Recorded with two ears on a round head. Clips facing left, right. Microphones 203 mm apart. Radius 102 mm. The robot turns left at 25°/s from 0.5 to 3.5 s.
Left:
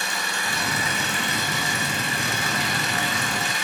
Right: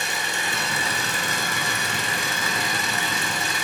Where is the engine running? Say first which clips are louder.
Right 1 dB; 20° right, 2.5 m; by 3.6 s 95° right, 2.5 m.